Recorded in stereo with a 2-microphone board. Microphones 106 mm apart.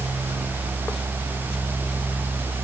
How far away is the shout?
No shout in this recording.